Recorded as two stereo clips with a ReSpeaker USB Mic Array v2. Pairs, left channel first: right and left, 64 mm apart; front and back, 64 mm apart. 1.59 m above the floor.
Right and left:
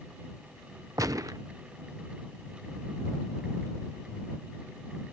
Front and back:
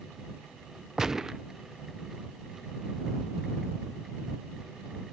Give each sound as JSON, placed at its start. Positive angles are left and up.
{"t": 1.0, "sound": "a gunshot", "azimuth_deg": 100}